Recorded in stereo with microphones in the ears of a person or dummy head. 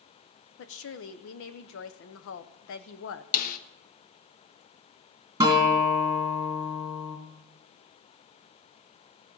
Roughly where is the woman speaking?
Left.